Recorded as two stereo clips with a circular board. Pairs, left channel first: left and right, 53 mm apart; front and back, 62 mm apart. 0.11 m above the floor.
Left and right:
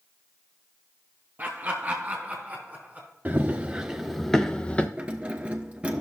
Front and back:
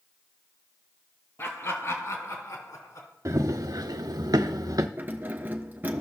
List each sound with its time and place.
1.4 s laughter: 40° right, 2.5 m; by 3.1 s 25° right, 4 m
3.2 s running footsteps: 150° right, 0.9 m; by 4.9 s 155° left, 0.8 m
5.0 s keys jangling: 145° right, 0.9 m